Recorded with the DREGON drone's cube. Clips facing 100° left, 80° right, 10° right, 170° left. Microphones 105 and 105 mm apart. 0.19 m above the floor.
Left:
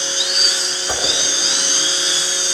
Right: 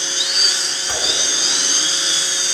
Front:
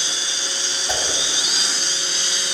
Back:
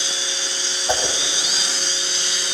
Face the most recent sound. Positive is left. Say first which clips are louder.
# left 3 dB, back 4 dB
turn(degrees=140)